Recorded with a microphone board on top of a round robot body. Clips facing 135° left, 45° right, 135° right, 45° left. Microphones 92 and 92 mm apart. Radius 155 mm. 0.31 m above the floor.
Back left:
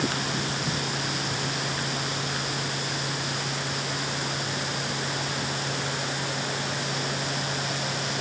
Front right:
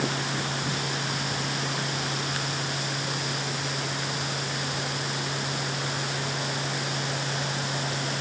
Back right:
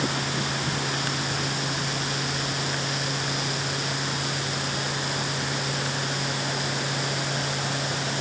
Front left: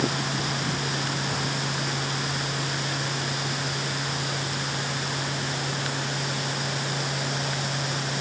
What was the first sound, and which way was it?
Only background noise.